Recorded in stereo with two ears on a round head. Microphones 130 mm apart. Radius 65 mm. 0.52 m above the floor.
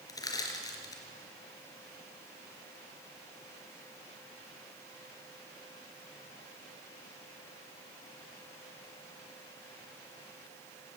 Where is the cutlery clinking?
I don't hear cutlery clinking.